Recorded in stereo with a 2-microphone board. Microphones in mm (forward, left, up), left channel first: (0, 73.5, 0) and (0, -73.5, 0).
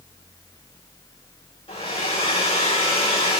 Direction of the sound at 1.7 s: 40° left (ahead or behind).